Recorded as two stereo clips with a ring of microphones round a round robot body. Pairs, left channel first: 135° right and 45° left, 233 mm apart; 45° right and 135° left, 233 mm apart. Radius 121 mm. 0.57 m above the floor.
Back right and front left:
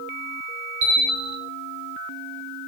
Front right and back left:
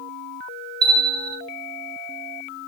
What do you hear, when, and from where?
0.8 s a bell: 65° left, 1.0 m